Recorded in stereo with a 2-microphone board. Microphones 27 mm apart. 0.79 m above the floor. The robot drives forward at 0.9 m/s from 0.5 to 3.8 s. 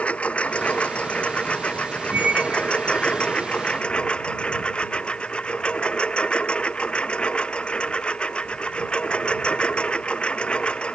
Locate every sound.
0.0 s a lawn mower: 55° left (ahead or behind); by 11.0 s 45° left (ahead or behind)
2.1 s a squeak: 60° right (ahead or behind); by 3.6 s 30° right (ahead or behind)